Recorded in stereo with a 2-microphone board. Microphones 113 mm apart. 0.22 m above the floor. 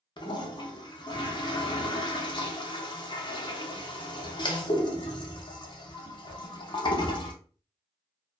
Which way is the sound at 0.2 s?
45° left (ahead or behind).